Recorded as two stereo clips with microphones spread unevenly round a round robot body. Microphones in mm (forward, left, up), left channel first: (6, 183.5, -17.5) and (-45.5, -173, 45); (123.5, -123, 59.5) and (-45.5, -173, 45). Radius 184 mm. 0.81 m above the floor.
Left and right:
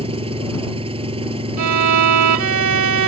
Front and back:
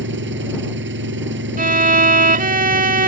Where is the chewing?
No chewing in this recording.